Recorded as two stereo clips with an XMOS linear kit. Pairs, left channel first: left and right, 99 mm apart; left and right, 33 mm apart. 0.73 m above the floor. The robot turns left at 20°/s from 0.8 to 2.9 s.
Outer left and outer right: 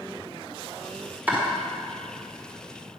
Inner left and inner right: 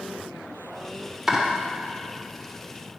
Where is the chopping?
15° right (ahead or behind), 1.8 m.